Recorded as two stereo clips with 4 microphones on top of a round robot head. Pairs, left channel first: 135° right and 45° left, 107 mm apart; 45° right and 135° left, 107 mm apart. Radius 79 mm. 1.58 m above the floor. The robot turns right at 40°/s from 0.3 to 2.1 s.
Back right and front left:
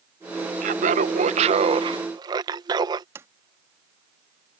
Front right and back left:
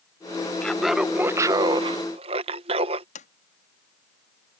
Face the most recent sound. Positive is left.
turn(degrees=-25)